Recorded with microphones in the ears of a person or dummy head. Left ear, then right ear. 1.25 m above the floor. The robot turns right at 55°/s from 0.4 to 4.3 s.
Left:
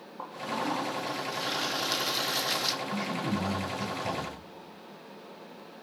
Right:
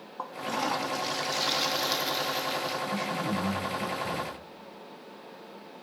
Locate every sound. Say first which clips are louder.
0.2 s a toilet flushing: right 2 dB; 100° right, 2.5 m; by 2.8 s 30° left, 2.5 m
2.9 s a man speaking: right 2 dB; 20° right, 8 m; by 4.3 s 60° left, 8 m